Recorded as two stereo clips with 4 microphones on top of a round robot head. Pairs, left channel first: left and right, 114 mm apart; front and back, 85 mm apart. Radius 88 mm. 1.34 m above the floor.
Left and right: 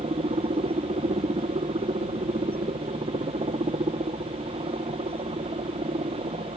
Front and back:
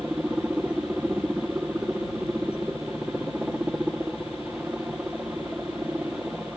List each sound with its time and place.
0.0 s a helicopter: 105° right